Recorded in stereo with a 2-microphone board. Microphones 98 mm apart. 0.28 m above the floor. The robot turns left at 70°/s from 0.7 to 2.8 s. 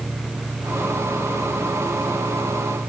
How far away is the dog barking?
I don't hear a dog barking.